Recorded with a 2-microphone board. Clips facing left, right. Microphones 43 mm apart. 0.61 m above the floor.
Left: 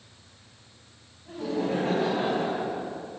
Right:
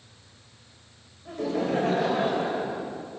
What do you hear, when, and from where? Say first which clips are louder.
1.2 s laughter: right 2 dB; 70° right (ahead or behind), 3 m